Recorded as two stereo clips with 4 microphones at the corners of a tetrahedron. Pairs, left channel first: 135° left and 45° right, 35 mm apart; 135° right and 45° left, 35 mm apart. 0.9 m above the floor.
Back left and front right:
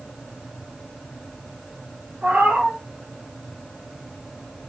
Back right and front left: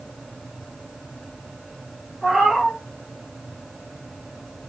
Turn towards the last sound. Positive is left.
turn(degrees=-45)